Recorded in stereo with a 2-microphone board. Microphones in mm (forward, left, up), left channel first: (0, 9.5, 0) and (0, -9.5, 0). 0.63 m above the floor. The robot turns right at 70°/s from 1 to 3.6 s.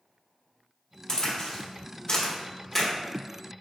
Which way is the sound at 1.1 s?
25° left (ahead or behind).